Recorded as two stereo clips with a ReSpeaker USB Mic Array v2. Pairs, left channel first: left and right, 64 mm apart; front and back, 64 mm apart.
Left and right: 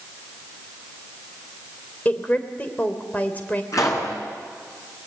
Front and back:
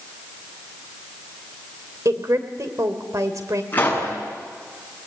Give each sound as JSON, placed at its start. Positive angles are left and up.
{"t": 2.0, "sound": "a woman speaking", "azimuth_deg": 155, "distance_m": 2.5}
{"t": 3.7, "sound": "a pop", "azimuth_deg": 65, "distance_m": 7.0}